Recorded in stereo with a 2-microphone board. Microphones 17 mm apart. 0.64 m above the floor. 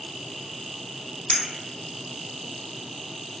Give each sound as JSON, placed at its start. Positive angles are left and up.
{"t": 1.3, "sound": "a clink", "side_deg": 55, "distance_m": 0.9}